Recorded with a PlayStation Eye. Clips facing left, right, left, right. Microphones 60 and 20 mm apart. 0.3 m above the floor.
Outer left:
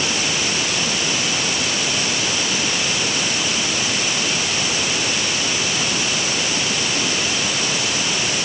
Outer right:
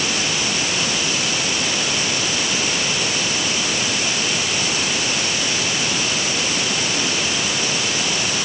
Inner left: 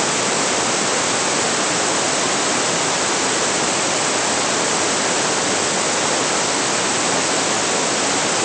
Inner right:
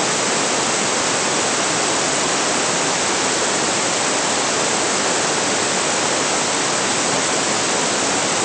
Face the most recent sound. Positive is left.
No sound to turn to.